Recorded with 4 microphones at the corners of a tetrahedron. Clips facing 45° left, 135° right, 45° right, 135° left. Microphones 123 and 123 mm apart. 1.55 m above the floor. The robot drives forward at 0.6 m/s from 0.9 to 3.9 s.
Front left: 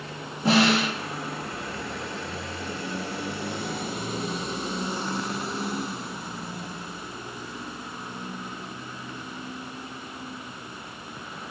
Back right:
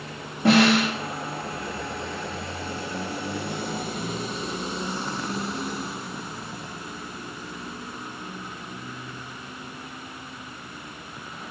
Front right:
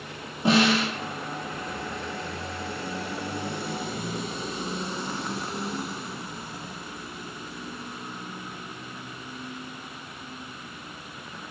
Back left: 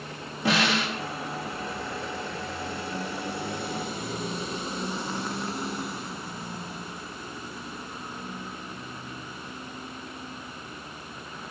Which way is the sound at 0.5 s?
110° right.